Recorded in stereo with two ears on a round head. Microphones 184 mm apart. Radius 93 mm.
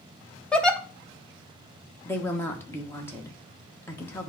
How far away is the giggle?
About 0.9 m.